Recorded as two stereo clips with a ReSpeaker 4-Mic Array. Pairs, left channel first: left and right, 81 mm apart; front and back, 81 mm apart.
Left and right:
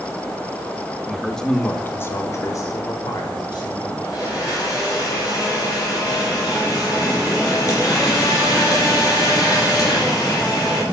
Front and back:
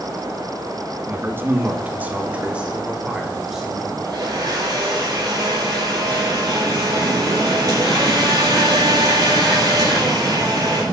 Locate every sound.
1.1 s a man speaking: 175° right, 1.1 m; by 3.9 s 95° left, 1.9 m
4.0 s a blender: 135° left, 6 m